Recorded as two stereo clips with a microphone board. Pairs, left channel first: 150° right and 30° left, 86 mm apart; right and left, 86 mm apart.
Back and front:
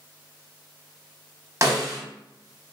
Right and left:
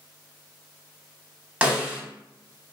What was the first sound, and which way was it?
A snare drum, 25° left.